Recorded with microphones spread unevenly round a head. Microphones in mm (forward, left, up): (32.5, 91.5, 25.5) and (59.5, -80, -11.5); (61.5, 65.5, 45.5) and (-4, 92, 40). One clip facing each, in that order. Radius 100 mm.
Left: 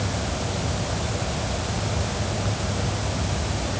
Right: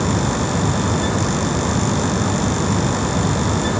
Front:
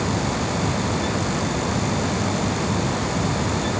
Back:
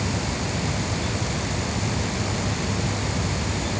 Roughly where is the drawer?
No drawer in this recording.